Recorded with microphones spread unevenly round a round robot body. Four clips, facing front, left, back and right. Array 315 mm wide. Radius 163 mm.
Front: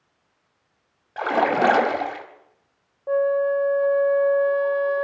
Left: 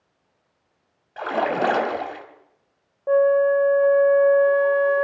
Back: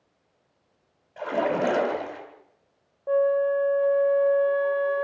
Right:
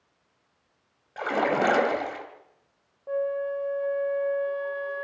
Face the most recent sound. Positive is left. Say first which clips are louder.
# left 11 dB, front 1 dB
turn(degrees=65)